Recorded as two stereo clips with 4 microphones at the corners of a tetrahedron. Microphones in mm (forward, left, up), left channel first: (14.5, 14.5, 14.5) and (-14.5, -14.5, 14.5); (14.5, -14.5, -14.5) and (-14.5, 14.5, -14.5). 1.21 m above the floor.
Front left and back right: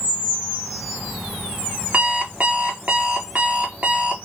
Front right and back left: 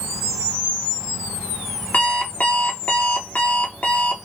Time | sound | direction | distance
1.9 | an alarm clock | 90° right | 0.7 m